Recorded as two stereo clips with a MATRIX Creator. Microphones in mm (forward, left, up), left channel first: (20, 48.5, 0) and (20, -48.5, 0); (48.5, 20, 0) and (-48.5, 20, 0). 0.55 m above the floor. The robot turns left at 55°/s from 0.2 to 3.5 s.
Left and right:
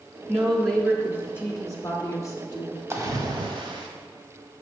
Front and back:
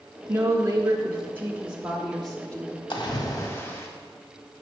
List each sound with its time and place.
0.3 s a woman speaking: 170° right, 0.7 m; by 2.8 s 50° left, 0.7 m
2.9 s a splash: 25° right, 0.9 m; by 3.9 s 60° right, 0.9 m